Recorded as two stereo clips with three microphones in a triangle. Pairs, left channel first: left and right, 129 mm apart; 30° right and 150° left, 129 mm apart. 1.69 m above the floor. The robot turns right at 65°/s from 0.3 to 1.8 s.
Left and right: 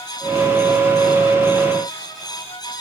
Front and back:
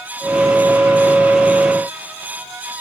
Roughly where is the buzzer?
No buzzer in this recording.